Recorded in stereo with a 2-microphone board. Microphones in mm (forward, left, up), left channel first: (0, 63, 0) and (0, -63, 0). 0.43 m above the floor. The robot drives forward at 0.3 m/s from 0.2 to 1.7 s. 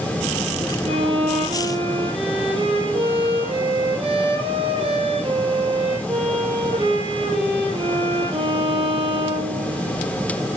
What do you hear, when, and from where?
0.8 s a violin: 45° right (ahead or behind), 4 m